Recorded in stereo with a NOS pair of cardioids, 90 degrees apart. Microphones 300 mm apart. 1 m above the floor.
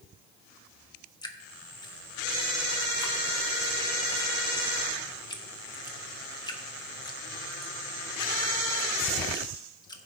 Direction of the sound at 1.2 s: 15° left.